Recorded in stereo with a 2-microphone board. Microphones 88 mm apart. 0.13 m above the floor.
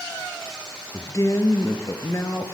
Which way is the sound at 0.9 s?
40° left (ahead or behind).